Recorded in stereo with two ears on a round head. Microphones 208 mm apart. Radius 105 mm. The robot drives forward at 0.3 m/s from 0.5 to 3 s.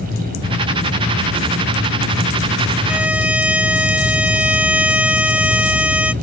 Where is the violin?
5° right (ahead or behind).